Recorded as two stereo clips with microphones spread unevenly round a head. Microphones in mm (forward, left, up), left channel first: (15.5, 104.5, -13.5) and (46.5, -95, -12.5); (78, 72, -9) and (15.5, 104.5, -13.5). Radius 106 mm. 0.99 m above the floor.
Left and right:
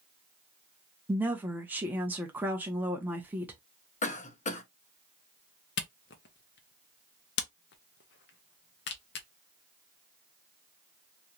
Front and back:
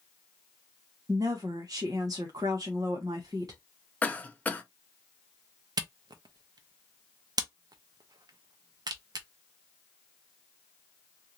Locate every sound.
1.1 s a woman speaking: 165° right, 0.6 m
4.0 s a cough: 45° left, 0.9 m
5.8 s a camera shutter: 140° left, 0.6 m